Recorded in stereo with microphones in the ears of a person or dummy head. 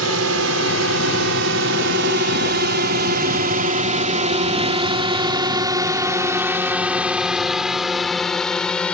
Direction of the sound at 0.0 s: 75° right (ahead or behind).